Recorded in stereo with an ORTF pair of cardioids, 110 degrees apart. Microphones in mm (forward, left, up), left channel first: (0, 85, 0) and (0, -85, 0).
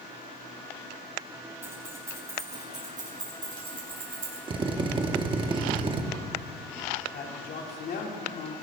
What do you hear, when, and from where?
1.6 s keys jangling: 15° right, 5.5 m; by 4.4 s 35° right, 4.5 m
4.5 s a drill: 30° right, 1.2 m
7.1 s a man speaking: 60° left, 2.5 m